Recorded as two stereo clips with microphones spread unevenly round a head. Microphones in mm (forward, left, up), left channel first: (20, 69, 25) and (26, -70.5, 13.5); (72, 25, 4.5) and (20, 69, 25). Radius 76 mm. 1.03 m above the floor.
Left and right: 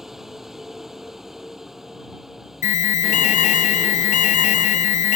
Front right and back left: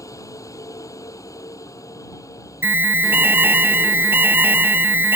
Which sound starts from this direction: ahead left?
An alarm, at 2.6 s.